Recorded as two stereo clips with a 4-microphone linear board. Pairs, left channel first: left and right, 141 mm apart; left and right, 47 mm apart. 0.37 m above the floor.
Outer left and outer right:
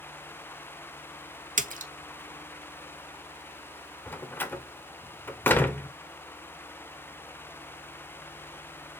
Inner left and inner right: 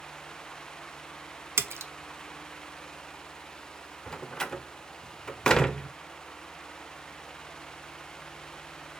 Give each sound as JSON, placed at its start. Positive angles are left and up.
{"t": 1.6, "sound": "a splash", "side_deg": -65, "distance_m": 0.5}
{"t": 4.1, "sound": "a door slam", "side_deg": 15, "distance_m": 0.5}